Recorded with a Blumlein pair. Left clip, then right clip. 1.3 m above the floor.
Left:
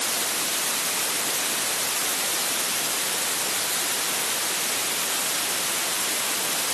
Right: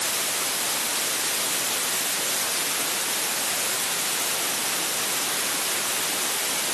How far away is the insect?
No insect in this recording.